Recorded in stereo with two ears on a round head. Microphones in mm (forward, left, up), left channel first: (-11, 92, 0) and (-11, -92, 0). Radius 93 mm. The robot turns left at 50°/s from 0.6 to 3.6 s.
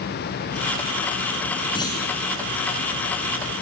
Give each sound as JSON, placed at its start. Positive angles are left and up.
{"t": 1.8, "sound": "a clunk", "side_deg": 25, "distance_m": 5.5}